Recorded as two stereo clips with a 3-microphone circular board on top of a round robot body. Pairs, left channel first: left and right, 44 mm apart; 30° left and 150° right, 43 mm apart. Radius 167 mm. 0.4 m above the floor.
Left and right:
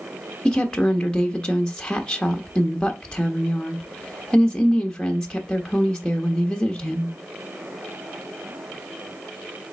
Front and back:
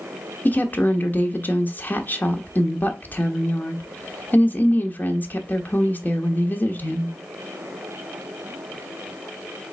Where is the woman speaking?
25° left, 1.0 m.